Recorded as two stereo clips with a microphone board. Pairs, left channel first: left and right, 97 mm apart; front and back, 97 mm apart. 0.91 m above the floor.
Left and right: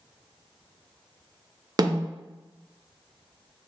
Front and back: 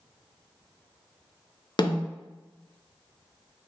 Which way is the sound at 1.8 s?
40° right.